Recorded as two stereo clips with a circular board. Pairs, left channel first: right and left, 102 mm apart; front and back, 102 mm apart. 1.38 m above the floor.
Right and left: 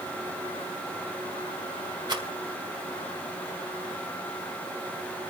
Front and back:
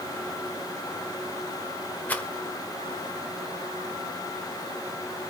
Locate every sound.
2.1 s a rattle: 70° left, 1.5 m